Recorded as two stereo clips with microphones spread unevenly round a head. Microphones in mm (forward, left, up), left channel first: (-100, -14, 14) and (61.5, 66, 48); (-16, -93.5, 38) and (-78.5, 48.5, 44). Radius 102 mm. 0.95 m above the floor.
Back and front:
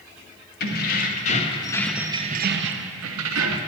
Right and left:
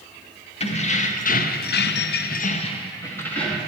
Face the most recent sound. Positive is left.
turn(degrees=20)